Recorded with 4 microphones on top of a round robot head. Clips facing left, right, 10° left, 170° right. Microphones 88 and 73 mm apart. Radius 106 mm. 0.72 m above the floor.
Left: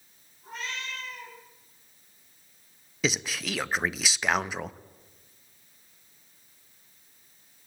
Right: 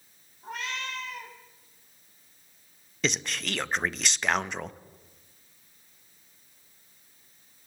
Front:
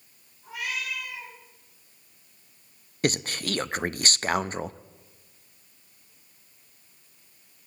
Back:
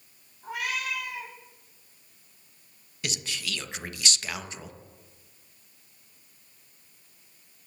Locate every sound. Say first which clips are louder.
0.4 s a cat meowing: right 2 dB, back 2 dB; 125° right, 2.5 m
3.0 s a man speaking: left 1 dB, front 9 dB; 5° left, 0.5 m